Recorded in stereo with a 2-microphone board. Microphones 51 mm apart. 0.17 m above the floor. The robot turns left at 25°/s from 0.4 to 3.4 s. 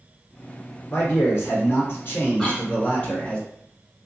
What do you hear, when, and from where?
0.9 s a man speaking: 85° left, 2.5 m; by 3.4 s 25° left, 2.5 m
2.4 s a cough: 15° left (ahead or behind), 1.4 m; by 2.7 s 10° left (ahead or behind), 1.4 m